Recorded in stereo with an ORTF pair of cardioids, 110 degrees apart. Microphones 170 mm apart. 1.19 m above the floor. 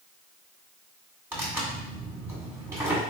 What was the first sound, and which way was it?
Tearing paper, 15° right.